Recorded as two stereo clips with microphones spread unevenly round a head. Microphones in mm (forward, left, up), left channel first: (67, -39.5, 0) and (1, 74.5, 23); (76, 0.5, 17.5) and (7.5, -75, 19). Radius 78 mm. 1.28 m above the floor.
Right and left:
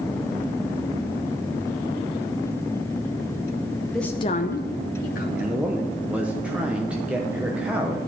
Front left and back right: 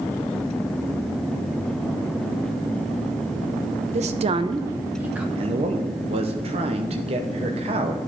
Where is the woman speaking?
150° right, 0.8 m; by 5.2 s 55° right, 1.7 m.